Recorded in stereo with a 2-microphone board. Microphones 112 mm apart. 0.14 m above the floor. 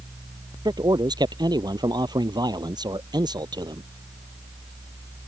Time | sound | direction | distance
0.7 | a man speaking | 40° right (ahead or behind) | ?